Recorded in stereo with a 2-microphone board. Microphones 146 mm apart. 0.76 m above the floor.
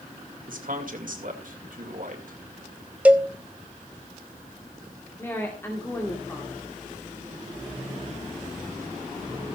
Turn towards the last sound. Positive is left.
turn(degrees=15)  # may be behind; listen again after turning